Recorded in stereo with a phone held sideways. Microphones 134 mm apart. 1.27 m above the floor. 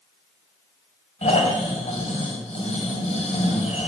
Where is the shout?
No shout in this recording.